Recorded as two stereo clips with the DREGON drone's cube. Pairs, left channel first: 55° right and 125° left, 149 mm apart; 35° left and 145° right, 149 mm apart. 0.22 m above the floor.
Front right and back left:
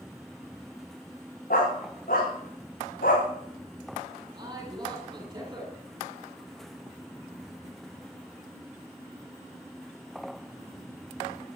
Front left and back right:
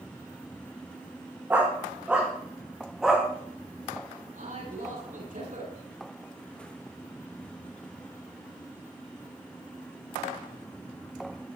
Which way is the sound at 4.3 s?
175° right.